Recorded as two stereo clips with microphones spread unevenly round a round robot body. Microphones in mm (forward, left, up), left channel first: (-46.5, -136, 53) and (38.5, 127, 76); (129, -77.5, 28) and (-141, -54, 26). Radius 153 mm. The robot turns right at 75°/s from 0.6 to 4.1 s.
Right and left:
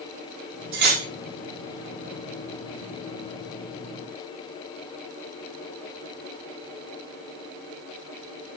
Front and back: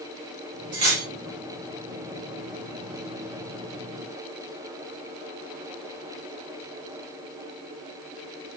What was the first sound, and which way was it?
Cutlery clinking, 120° left.